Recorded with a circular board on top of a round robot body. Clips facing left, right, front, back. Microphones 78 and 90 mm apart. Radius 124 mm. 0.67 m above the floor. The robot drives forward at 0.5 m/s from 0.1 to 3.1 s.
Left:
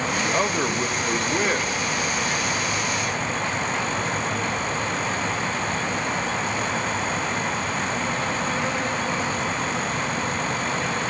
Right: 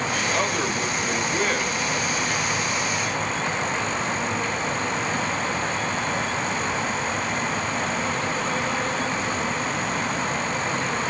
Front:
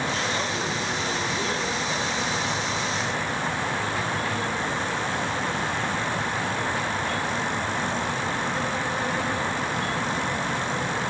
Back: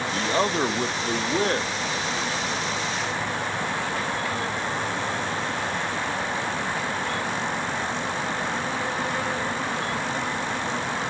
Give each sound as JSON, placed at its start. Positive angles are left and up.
{"t": 0.1, "sound": "a man speaking", "azimuth_deg": 165, "distance_m": 1.0}